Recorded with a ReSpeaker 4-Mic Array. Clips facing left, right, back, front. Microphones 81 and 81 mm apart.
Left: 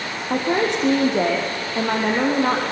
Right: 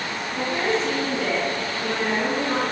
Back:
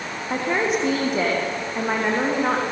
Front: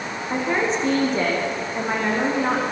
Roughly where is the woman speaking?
Left.